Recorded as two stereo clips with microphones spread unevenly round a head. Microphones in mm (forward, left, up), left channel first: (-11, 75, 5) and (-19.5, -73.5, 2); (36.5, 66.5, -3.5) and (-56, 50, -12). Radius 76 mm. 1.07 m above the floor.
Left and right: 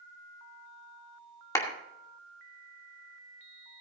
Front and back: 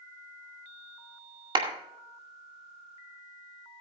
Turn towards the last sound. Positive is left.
turn(degrees=160)